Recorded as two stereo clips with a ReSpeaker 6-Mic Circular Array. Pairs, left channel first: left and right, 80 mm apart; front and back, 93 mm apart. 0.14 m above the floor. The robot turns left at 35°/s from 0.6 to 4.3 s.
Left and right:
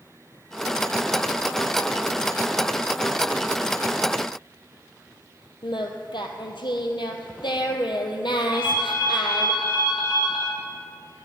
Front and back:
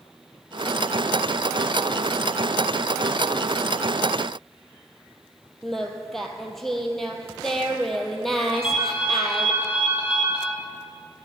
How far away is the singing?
About 0.8 m.